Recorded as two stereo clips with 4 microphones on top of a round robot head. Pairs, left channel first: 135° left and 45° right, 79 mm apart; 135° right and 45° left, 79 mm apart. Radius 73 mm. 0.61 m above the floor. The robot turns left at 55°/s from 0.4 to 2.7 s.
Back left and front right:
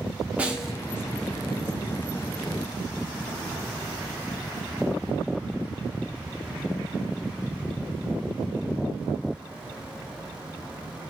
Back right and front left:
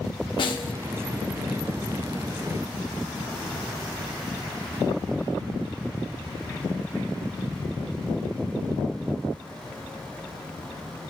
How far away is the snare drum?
About 0.6 m.